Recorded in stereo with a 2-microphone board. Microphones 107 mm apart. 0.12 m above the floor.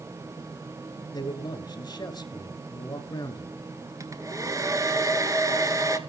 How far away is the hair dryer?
About 1.3 m.